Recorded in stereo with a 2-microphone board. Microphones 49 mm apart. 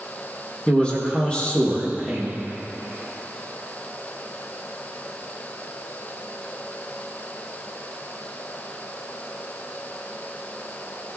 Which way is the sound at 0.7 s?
25° left (ahead or behind).